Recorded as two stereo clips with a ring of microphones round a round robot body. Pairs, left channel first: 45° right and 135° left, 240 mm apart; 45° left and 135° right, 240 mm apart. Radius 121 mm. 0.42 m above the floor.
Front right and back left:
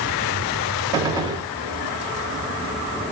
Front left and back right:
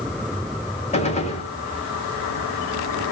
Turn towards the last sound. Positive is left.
turn(degrees=75)